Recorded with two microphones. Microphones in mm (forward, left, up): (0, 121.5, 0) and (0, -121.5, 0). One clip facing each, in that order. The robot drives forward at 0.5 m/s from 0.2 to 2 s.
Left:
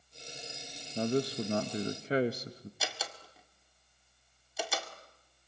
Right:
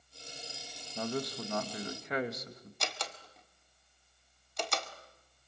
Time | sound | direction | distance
0.9 | a man speaking | 30° left (ahead or behind) | 1.1 m
2.8 | a door slam | 5° left (ahead or behind) | 1.8 m